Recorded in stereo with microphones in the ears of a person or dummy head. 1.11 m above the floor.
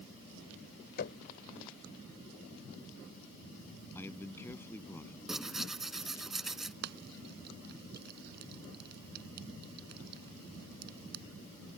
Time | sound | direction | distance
1.0 | knocking | 55° left (ahead or behind) | ?
4.0 | a man speaking | 10° left (ahead or behind) | ?
5.3 | tearing paper | 5° right (ahead or behind) | ?
6.8 | frying | 60° right (ahead or behind) | ?